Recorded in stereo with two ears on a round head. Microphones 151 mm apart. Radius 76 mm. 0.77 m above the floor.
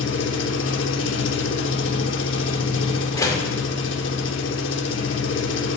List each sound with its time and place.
0.0 s an engine running: 85° left, 1.0 m
3.1 s a door slam: 20° left (ahead or behind), 1.8 m